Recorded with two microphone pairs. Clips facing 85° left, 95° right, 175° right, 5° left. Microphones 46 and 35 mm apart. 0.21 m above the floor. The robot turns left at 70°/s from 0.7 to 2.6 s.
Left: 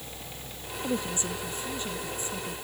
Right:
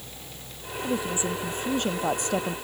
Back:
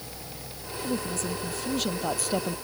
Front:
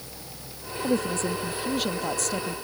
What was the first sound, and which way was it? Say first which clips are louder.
A woman speaking: right 3 dB, front 5 dB; 5° right.